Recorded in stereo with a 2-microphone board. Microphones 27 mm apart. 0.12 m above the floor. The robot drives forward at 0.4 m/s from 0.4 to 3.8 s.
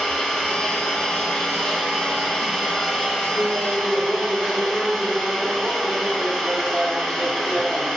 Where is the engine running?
35° left (ahead or behind), 1.0 m; by 8.0 s 15° left (ahead or behind), 2 m.